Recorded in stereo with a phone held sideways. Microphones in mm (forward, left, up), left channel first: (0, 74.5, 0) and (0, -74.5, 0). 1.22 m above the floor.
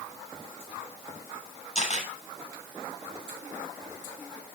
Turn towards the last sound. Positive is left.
turn(degrees=55)  # may be behind; listen again after turning